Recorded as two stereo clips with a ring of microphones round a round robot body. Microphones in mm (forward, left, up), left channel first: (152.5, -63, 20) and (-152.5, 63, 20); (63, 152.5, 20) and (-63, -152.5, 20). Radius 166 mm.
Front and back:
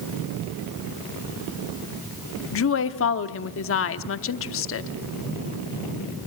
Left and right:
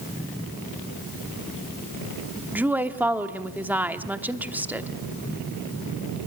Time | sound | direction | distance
2.5 | a woman speaking | 30° right | 1.0 m